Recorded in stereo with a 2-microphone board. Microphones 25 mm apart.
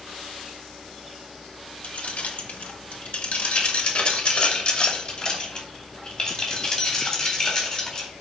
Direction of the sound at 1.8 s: 60° left (ahead or behind).